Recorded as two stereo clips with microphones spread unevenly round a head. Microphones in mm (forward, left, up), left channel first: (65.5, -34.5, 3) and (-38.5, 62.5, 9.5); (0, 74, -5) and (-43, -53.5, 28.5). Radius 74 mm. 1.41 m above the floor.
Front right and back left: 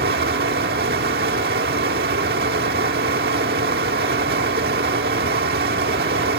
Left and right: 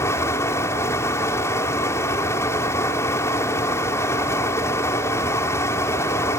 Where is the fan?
150° left, 1.8 m.